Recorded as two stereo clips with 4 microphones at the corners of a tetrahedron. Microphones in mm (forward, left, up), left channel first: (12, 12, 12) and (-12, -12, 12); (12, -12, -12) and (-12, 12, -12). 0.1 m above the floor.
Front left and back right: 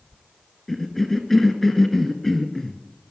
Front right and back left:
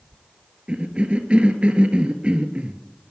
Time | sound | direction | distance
0.7 | a cough | 120° left | 1.3 m